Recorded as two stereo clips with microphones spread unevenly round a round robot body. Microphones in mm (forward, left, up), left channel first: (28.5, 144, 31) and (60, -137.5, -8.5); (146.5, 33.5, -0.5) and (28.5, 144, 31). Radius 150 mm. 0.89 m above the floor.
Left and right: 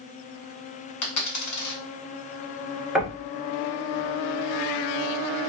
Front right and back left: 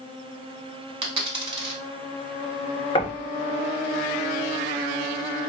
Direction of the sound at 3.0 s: Straight ahead.